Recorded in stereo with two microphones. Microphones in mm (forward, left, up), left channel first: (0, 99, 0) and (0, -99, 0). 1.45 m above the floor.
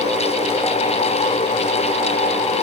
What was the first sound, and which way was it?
Only background noise.